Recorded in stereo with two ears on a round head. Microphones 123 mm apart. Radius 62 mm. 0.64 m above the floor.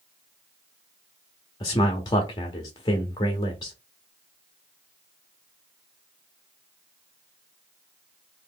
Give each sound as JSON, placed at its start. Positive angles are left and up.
{"t": 1.6, "sound": "a man speaking", "side_deg": 30, "distance_m": 0.7}